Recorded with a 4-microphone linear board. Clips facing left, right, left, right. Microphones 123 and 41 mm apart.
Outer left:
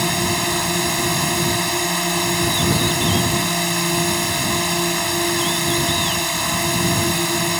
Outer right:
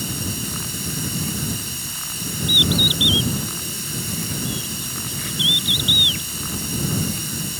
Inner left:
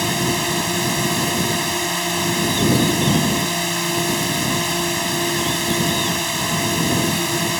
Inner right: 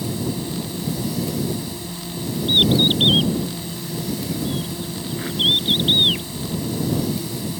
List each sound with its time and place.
0.0 s a drone: 75° left (ahead or behind)
2.5 s a bird: 75° right (ahead or behind)